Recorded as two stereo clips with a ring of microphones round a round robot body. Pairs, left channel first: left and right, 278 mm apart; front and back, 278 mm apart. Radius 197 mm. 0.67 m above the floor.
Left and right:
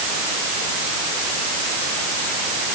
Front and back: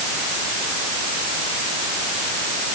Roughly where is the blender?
No blender in this recording.